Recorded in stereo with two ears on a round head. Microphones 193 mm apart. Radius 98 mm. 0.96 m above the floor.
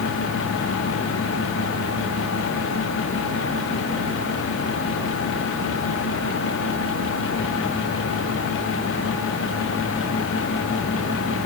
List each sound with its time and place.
Only background noise.